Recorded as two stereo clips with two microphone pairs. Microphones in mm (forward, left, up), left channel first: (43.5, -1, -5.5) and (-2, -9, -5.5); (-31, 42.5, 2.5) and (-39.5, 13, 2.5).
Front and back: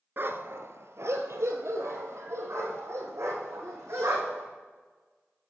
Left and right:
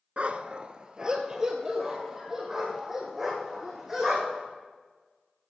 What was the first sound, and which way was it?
A dog barking, 140° right.